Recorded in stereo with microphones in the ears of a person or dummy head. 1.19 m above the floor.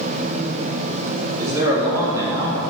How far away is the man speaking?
About 2 m.